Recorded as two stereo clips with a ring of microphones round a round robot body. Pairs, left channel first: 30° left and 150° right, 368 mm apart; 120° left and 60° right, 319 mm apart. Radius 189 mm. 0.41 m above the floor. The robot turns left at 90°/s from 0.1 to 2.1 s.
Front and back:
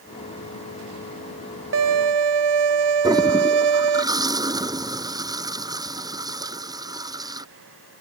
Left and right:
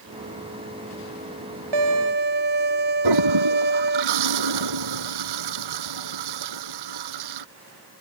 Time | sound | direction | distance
1.7 | a violin | 90° right | ?
3.0 | a toilet flushing | 70° right | ?